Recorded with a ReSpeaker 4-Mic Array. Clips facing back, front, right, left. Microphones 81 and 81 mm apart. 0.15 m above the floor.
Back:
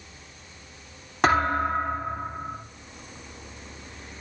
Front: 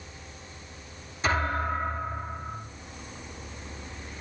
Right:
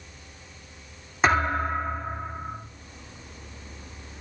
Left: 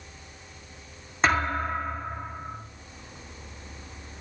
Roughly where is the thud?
Behind.